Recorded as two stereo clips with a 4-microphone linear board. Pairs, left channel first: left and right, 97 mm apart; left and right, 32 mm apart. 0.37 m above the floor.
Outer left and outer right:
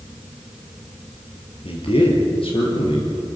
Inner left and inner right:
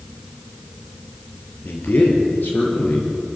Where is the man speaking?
70° left (ahead or behind), 6.5 m; by 3.4 s 65° left (ahead or behind), 5.5 m.